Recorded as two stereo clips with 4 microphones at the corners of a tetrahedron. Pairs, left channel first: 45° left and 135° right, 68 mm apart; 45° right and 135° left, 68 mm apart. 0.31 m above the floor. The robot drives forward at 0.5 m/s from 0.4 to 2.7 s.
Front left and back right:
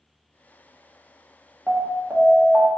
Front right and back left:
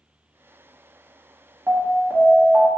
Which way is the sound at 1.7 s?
170° left.